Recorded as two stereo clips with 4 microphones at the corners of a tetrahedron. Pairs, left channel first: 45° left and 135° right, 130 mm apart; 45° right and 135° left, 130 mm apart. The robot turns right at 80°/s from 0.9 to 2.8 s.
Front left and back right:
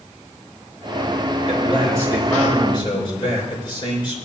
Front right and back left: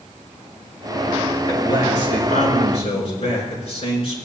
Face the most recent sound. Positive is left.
turn(degrees=-5)